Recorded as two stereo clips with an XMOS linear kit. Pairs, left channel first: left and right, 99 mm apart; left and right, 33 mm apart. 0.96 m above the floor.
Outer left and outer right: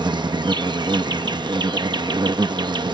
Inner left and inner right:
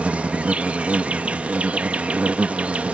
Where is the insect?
45° right (ahead or behind).